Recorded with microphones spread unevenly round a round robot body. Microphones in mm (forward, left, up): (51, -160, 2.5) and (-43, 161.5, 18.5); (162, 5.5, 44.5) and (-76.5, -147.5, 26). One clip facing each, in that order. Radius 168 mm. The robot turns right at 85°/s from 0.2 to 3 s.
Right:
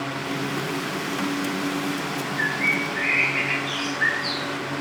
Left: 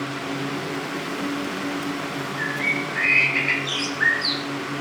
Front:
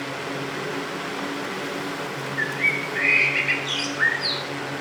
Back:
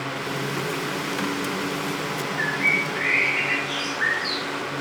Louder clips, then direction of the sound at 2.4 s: Even, back 2 dB; 5° left.